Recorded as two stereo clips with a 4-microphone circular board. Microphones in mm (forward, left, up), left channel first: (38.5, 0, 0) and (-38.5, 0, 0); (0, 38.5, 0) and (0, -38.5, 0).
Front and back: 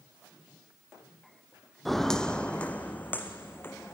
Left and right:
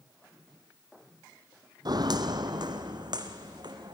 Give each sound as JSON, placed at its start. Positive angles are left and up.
{"t": 1.9, "sound": "footsteps", "azimuth_deg": -90, "distance_m": 0.9}